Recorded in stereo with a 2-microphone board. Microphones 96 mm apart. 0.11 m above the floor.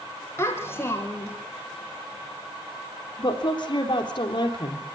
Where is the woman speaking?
50° left (ahead or behind), 3.5 m.